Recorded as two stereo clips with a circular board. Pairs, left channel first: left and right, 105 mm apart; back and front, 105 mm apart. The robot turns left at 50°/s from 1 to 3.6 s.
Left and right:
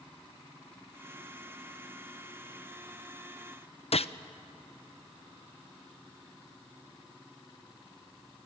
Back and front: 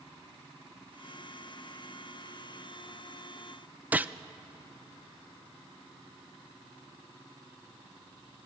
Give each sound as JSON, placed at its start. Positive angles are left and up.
{"t": 3.9, "sound": "a gunshot", "azimuth_deg": 75, "distance_m": 0.5}